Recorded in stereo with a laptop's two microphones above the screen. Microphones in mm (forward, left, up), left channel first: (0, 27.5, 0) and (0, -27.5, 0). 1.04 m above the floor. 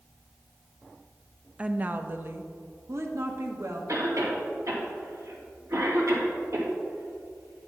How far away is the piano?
No piano in this recording.